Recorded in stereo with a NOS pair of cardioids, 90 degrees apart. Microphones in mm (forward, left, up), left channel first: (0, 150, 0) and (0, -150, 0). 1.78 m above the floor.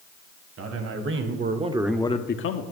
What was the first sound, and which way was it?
A man speaking, 55° right.